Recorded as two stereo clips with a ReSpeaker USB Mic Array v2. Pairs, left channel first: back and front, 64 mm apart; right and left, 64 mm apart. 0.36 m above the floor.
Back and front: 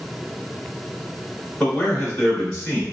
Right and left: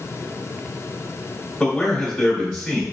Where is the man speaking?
170° right, 1.3 m.